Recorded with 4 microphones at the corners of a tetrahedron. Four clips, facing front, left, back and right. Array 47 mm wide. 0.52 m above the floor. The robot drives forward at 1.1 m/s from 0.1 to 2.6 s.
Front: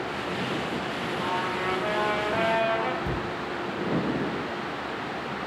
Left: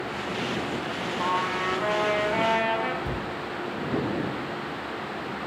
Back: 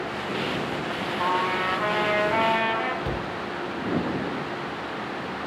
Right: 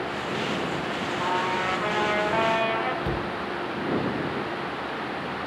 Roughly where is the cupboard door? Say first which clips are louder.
Right 3 dB, back 1 dB; behind right.